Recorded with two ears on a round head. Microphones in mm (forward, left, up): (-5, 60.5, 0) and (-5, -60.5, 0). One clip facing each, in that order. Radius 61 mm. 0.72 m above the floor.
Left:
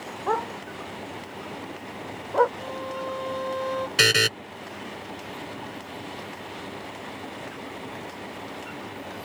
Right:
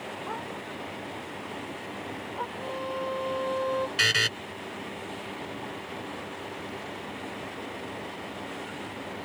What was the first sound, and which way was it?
A dog barking, 70° left (ahead or behind).